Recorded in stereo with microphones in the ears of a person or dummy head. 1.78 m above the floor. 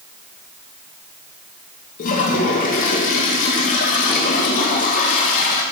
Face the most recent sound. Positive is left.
turn(degrees=50)  # may be behind; listen again after turning